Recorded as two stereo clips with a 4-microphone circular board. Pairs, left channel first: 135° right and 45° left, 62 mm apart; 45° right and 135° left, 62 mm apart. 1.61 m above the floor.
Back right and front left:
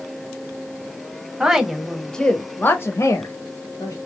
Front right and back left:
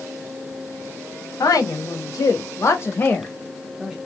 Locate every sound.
1.4 s a woman speaking: 30° right, 0.9 m; by 4.0 s 130° right, 0.9 m